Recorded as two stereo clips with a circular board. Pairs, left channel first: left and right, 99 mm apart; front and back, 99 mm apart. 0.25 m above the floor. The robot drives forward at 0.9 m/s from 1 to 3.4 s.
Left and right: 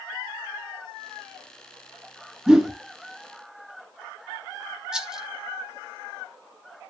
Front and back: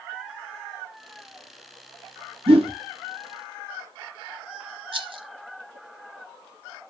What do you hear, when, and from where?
2.5 s a whoosh: 170° right, 0.9 m; by 2.7 s 175° right, 1.1 m
4.9 s a rattle: 170° right, 0.9 m